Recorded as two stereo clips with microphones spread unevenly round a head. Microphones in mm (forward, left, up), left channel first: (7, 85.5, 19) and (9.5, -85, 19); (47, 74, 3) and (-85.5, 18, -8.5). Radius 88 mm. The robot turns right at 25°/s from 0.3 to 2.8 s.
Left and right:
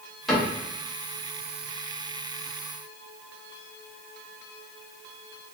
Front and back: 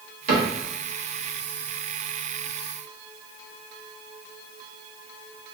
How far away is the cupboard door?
About 1.3 m.